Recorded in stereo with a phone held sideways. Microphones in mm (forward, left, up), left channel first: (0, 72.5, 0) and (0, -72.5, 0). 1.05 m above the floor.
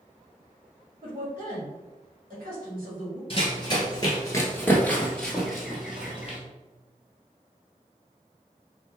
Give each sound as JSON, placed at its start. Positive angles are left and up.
{"t": 1.0, "sound": "a woman speaking", "side_deg": -55, "distance_m": 1.8}
{"t": 3.3, "sound": "running footsteps", "side_deg": 35, "distance_m": 1.2}